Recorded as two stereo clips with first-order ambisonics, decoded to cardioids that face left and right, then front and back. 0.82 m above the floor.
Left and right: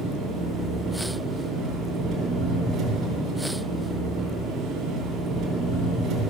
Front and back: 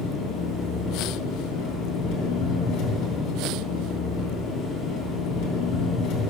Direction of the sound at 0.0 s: 30° right.